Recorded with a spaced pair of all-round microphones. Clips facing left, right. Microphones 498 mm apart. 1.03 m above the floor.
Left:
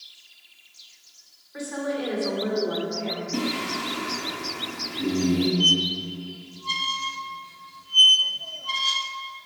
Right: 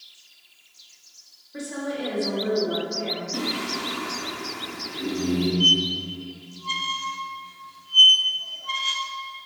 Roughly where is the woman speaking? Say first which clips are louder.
Left 1 dB; right.